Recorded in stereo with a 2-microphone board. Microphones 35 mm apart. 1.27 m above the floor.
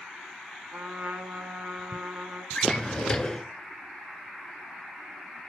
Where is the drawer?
20° left (ahead or behind), 2.5 m.